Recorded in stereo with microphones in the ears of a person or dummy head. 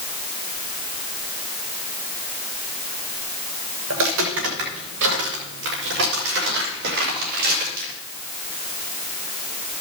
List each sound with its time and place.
3.9 s footsteps: 80° right, 6.5 m; by 7.9 s 55° right (ahead or behind), 7.5 m